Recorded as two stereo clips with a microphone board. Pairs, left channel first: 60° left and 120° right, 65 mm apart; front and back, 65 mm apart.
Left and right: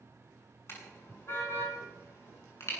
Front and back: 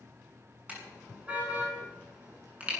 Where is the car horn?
110° left, 7 m.